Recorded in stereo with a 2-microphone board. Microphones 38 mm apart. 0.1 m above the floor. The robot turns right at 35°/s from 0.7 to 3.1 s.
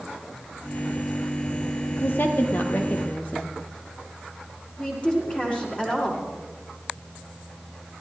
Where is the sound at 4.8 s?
30° left (ahead or behind), 7 m.